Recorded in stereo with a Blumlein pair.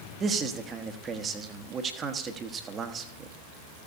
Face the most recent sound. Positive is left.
turn(degrees=-25)